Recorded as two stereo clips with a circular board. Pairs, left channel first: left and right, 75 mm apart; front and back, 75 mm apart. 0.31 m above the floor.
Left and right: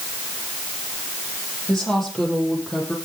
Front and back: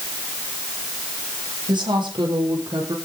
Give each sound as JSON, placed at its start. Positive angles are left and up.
{"t": 1.7, "sound": "a woman speaking", "azimuth_deg": 170, "distance_m": 9.0}